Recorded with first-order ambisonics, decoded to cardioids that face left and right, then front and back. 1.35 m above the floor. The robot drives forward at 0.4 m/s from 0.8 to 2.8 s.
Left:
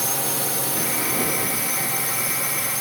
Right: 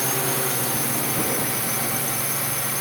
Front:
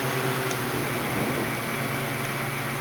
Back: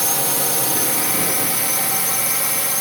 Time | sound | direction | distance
0.0 | a drone | 175° left | ?